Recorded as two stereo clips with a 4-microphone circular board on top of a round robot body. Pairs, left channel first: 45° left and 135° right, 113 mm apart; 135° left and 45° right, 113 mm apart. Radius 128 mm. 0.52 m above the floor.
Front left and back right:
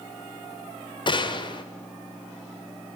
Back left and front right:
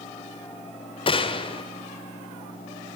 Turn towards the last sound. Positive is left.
turn(degrees=95)